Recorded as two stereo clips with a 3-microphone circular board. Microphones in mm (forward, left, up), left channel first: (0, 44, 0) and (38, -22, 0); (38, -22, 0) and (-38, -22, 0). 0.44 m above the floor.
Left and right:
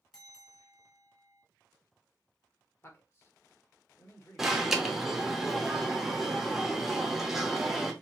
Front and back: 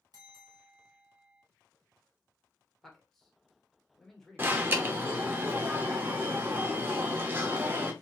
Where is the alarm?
140° right, 0.5 m.